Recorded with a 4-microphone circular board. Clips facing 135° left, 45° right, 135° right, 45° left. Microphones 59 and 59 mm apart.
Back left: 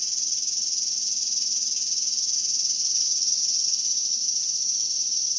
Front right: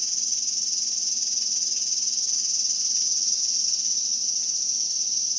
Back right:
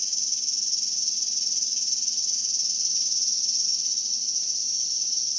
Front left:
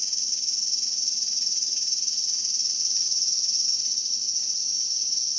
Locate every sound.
0.0 s an insect: 15° left, 1.6 m